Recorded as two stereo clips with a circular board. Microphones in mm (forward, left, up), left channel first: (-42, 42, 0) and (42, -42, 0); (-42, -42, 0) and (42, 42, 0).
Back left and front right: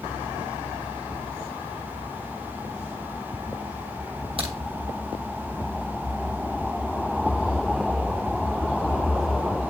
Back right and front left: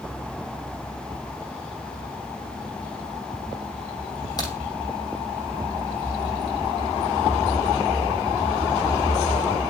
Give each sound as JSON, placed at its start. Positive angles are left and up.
{"t": 4.4, "sound": "a crack", "azimuth_deg": -80, "distance_m": 3.0}